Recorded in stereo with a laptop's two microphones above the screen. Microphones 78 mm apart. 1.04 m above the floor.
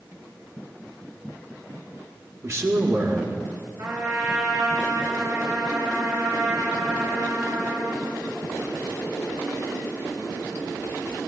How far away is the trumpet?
About 4 m.